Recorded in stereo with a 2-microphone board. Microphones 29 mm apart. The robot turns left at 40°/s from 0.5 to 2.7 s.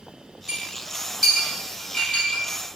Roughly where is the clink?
Right.